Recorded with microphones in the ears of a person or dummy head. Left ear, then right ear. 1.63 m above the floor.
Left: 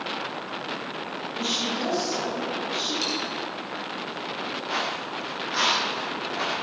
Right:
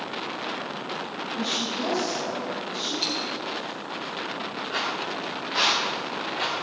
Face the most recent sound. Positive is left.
turn(degrees=20)  # may be behind; listen again after turning